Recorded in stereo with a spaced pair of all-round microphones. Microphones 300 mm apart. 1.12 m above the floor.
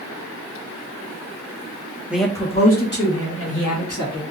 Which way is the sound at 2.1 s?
5° right (ahead or behind).